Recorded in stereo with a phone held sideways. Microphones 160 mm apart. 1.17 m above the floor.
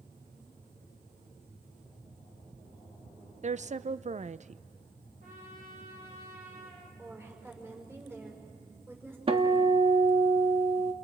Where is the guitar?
35° right (ahead or behind), 1.5 m.